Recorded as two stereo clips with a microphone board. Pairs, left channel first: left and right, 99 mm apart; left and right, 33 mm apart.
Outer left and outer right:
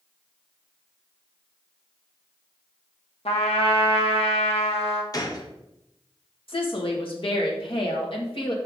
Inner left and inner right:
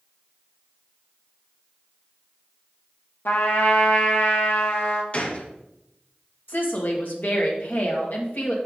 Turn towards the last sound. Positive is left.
turn(degrees=60)  # may be behind; listen again after turning